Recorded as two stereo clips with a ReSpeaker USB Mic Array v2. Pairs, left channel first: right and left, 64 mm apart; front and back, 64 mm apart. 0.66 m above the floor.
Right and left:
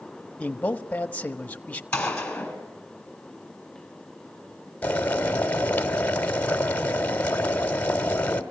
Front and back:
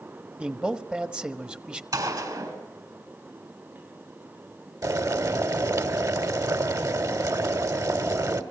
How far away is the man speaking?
About 1.0 m.